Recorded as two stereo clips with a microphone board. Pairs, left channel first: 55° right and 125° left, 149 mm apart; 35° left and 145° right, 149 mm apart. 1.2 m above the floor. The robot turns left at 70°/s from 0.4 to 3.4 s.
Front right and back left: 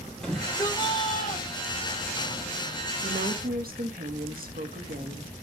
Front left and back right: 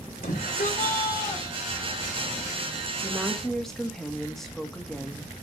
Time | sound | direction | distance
0.2 | a shout | 30° left | 4.5 m
3.0 | a woman speaking | 150° left | 1.9 m